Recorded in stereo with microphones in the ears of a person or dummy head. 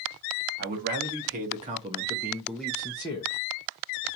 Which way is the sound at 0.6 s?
50° right (ahead or behind).